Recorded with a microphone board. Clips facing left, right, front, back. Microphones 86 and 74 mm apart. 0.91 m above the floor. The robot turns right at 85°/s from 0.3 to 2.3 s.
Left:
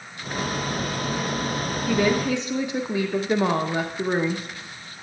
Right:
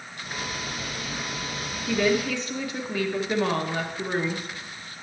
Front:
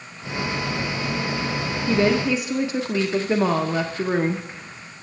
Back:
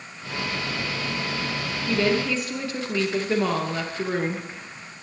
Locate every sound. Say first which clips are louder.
1.9 s a woman speaking: left 2 dB, front 3 dB; 10° left, 0.5 m; by 4.5 s 50° left, 0.5 m